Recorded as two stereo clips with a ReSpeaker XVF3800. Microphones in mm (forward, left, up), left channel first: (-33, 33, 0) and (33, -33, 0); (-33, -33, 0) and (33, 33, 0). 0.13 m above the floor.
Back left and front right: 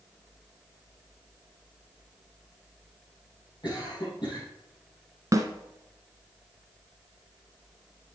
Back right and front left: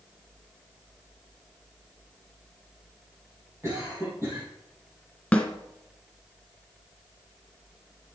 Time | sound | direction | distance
3.6 | a cough | 105° left | 4 m
5.3 | a snare drum | 60° right | 1.4 m